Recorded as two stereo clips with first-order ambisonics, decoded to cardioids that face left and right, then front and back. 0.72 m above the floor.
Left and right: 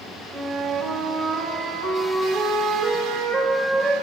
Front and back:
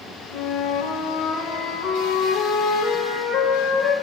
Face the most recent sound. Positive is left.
turn(degrees=-20)